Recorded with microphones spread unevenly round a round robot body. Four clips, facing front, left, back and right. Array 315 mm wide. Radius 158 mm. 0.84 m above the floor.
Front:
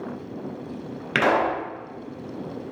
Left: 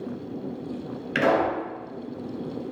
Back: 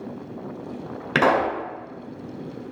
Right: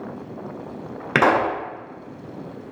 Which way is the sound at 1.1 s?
100° right.